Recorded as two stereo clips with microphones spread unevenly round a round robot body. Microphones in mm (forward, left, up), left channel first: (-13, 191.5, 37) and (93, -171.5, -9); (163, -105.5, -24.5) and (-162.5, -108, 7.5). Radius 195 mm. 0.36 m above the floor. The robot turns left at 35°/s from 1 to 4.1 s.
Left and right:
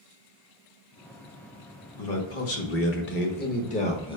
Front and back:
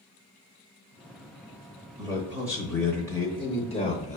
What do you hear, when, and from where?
2.0 s a man speaking: 105° left, 0.9 m; by 4.2 s 30° left, 0.9 m